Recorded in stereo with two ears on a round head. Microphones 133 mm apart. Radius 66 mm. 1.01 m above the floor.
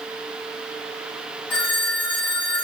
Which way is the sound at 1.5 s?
35° left (ahead or behind).